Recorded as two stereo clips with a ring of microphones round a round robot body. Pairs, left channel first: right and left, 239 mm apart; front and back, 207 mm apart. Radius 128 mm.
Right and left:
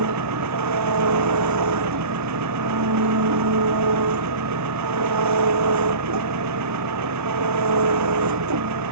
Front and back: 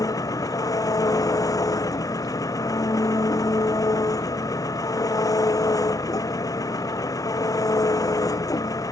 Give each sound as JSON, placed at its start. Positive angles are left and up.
{"t": 0.0, "sound": "an engine running", "azimuth_deg": 75}